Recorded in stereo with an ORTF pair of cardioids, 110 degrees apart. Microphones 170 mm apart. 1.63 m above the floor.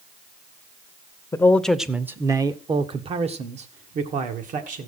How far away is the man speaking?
About 0.9 m.